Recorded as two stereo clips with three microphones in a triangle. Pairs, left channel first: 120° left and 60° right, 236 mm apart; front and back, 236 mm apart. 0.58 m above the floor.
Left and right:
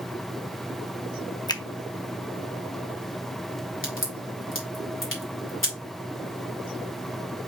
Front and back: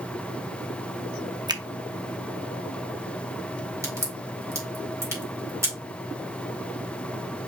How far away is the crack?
About 2 m.